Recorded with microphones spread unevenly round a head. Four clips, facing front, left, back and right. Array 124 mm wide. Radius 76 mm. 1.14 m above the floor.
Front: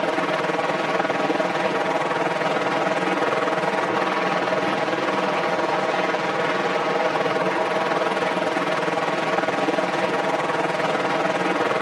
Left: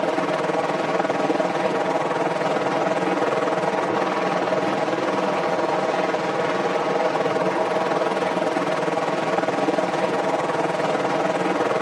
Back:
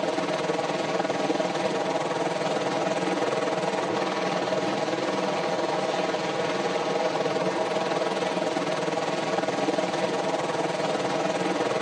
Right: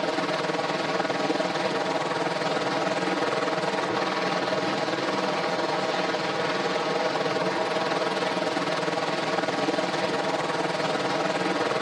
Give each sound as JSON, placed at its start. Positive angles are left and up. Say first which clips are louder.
{"t": 0.0, "sound": "a helicopter", "louder": "left 5 dB, front 4 dB", "azimuth_deg": 50}